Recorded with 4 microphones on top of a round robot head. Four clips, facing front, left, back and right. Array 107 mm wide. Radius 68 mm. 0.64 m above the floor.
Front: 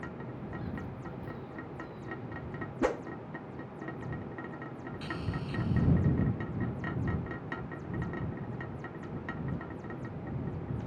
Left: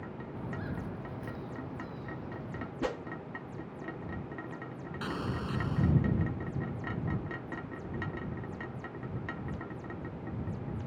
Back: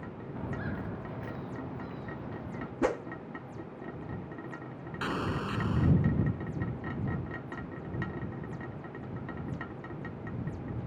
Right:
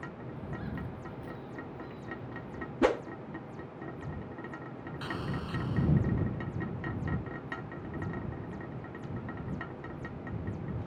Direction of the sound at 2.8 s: 110° right.